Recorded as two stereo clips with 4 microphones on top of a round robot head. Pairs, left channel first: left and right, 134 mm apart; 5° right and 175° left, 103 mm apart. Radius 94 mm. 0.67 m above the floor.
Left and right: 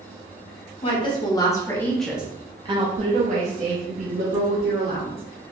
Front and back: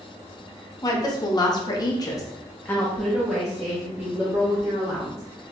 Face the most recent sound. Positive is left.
turn(degrees=-110)